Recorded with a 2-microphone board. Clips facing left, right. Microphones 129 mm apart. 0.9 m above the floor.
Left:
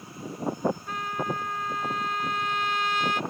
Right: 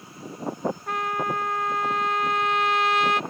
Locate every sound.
0.9 s a trumpet: 65° right (ahead or behind)